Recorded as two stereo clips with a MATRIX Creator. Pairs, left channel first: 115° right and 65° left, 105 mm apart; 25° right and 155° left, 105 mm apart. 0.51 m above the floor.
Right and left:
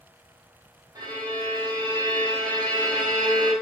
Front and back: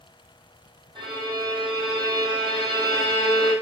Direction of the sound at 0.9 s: 120° left.